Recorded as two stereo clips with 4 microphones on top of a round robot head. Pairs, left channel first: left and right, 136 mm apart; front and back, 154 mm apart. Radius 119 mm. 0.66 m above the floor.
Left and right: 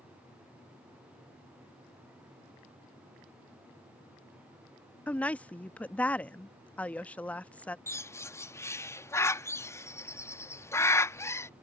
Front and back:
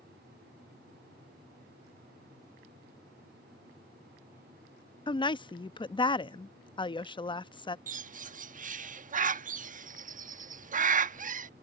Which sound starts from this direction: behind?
A bird, at 7.9 s.